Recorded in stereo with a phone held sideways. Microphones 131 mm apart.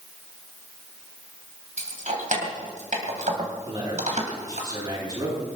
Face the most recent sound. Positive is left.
turn(degrees=-40)  # may be behind; listen again after turning